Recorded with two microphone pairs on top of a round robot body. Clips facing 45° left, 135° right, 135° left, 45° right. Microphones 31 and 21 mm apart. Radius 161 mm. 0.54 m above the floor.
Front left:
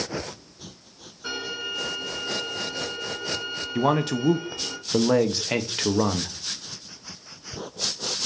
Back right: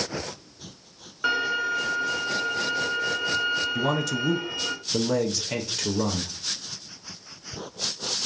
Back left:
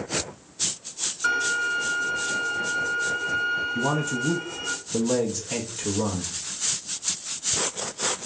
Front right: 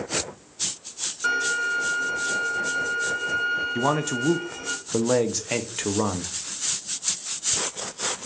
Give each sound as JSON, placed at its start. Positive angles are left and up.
{"t": 1.2, "sound": "a violin", "azimuth_deg": -125, "distance_m": 0.6}
{"t": 3.8, "sound": "a man speaking", "azimuth_deg": 5, "distance_m": 0.8}